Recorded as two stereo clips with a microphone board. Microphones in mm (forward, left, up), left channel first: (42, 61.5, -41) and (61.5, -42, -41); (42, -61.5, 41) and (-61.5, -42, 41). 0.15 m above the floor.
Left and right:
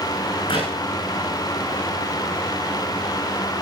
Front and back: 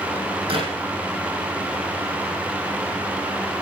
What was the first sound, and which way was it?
A clap, 135° left.